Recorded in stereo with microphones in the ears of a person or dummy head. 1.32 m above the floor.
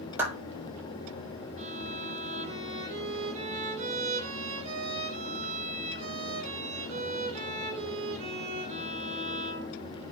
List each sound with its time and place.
0.2 s a clap: 15° right (ahead or behind), 4 m
1.6 s a violin: 40° right (ahead or behind), 3.5 m